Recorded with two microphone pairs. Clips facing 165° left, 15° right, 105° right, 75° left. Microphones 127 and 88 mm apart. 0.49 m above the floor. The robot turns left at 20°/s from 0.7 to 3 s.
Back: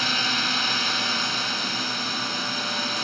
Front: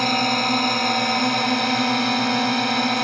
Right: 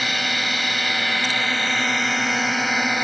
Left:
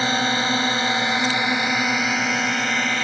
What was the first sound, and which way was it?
A drone, 15° left.